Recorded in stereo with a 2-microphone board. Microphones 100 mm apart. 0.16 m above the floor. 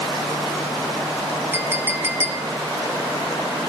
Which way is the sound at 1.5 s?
25° right (ahead or behind).